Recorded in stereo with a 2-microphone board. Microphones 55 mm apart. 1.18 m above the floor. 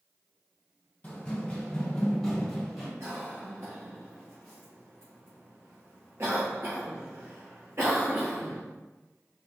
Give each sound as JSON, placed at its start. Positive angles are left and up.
{"t": 1.0, "sound": "running footsteps", "side_deg": 30, "distance_m": 1.6}
{"t": 3.0, "sound": "a cough", "side_deg": -55, "distance_m": 0.5}